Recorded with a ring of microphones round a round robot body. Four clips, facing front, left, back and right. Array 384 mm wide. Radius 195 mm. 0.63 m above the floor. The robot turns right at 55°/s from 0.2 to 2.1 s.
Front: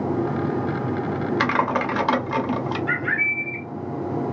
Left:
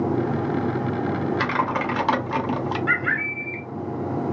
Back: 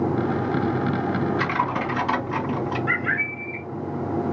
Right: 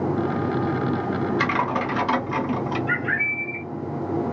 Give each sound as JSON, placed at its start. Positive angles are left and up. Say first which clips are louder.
{"t": 1.4, "sound": "typing on a keyboard", "louder": "even, front 3 dB", "azimuth_deg": 5, "distance_m": 1.1}
{"t": 2.9, "sound": "a bird", "louder": "left 1 dB, front 1 dB", "azimuth_deg": 95, "distance_m": 1.4}